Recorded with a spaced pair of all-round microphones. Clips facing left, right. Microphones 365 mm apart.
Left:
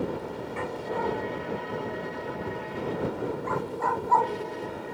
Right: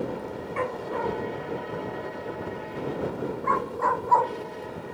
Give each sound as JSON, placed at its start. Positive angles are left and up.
{"t": 0.6, "sound": "a dog barking", "side_deg": 55}